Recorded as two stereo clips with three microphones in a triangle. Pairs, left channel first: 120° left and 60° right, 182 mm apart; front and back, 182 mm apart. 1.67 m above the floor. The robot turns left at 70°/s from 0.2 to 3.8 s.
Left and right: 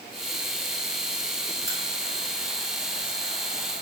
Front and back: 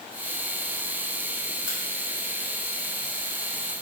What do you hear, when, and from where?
1.7 s a crack: 100° right, 1.3 m; by 1.8 s 105° right, 1.3 m